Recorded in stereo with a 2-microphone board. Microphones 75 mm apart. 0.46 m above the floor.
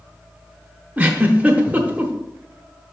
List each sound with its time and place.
1.0 s a giggle: 20° right (ahead or behind), 1.0 m